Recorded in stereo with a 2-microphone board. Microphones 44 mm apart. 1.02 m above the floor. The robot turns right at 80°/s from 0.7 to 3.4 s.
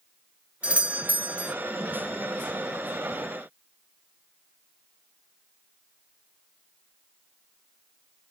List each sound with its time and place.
0.6 s a doorbell: 135° right, 0.6 m; by 1.6 s 65° right, 0.6 m